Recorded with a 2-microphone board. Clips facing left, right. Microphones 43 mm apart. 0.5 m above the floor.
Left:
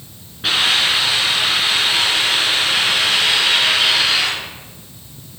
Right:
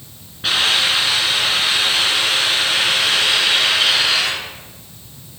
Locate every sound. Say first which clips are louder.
0.4 s a hiss: left 1 dB; 5° left (ahead or behind), 3.5 m